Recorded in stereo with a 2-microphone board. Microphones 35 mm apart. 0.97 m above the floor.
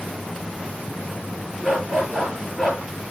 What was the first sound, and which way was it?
A dog barking, centre (ahead or behind).